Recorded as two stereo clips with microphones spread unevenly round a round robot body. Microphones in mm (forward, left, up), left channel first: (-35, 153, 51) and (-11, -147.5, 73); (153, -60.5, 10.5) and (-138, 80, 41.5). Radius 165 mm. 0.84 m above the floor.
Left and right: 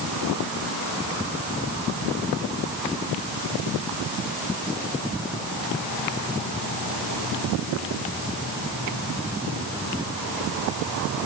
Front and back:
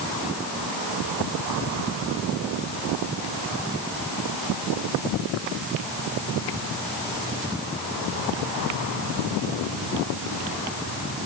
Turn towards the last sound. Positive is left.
No sound to turn to.